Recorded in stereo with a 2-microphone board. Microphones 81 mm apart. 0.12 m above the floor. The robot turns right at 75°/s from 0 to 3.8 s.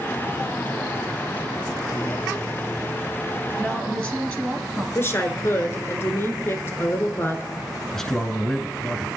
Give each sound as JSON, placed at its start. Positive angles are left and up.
{"t": 3.6, "sound": "a woman speaking", "side_deg": 5, "distance_m": 1.1}
{"t": 5.0, "sound": "a woman speaking", "side_deg": 30, "distance_m": 1.4}
{"t": 7.9, "sound": "a man speaking", "side_deg": 5, "distance_m": 1.1}